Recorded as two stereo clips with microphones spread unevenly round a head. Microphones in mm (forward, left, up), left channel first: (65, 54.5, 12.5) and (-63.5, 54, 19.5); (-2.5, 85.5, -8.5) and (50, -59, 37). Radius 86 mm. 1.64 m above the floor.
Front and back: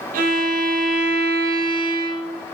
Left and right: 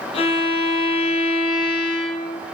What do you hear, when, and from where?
0.1 s a violin: 170° left, 0.5 m